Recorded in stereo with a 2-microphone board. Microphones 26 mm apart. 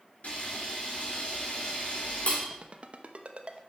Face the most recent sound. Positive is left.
turn(degrees=-50)  # may be behind; listen again after turning